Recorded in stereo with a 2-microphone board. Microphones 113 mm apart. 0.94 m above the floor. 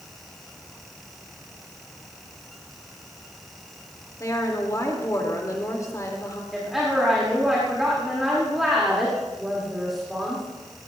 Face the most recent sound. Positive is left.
turn(degrees=-5)  # may be behind; listen again after turning